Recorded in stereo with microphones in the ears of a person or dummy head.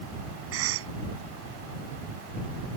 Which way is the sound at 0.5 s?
80° right.